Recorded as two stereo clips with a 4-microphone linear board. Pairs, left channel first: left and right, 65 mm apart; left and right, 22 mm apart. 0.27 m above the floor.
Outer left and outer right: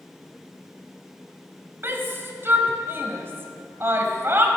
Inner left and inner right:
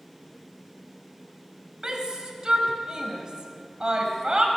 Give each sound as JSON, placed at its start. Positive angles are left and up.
{"t": 1.8, "sound": "a shout", "side_deg": -40, "distance_m": 1.5}